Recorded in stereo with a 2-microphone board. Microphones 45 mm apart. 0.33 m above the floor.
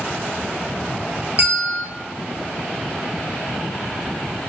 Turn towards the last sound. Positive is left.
turn(degrees=-35)  # may be behind; listen again after turning